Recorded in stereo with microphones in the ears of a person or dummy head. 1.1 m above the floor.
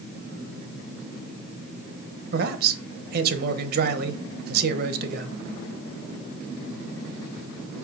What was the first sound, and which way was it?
A man speaking, 50° right (ahead or behind).